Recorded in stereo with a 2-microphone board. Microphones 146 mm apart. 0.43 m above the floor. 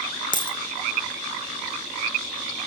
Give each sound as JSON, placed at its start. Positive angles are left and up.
{"t": 0.3, "sound": "a dropped coin", "side_deg": 30, "distance_m": 0.8}